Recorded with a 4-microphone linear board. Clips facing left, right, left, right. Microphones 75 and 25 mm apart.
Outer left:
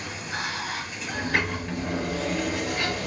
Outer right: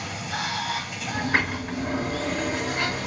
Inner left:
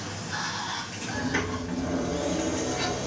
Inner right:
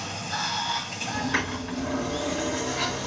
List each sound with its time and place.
0.0 s running water: 70° right (ahead or behind), 1.1 m
1.1 s a sliding door: 30° right (ahead or behind), 1.1 m